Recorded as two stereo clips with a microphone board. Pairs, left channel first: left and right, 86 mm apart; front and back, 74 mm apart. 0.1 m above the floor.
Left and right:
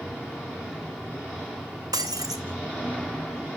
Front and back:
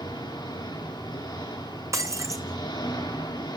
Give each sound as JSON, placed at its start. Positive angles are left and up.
{"t": 0.0, "sound": "an engine running", "azimuth_deg": -15, "distance_m": 5.5}
{"t": 1.9, "sound": "breaking glass", "azimuth_deg": -135, "distance_m": 1.2}